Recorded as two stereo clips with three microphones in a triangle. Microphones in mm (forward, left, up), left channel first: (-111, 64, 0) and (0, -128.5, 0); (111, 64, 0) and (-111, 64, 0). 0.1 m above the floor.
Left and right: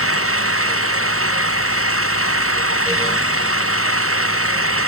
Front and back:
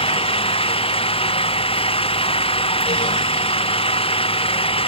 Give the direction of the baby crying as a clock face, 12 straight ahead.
No baby crying in this recording.